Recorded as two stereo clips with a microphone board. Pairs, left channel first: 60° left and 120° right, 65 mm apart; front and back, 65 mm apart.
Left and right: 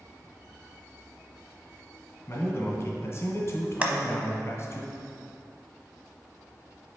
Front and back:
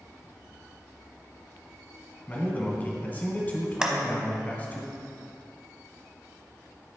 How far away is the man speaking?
About 1.3 m.